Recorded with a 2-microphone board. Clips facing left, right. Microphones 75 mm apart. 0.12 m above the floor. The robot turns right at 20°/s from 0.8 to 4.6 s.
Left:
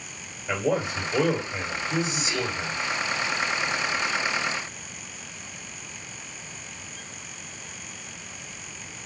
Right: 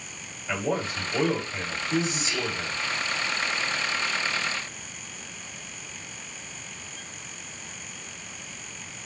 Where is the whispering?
25° left (ahead or behind), 1.3 m; by 2.6 s 20° left (ahead or behind), 1.3 m.